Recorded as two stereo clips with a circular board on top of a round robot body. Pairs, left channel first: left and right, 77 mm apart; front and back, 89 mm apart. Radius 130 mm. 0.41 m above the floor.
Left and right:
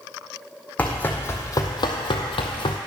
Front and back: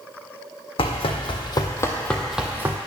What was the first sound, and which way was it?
Running footsteps, 20° left.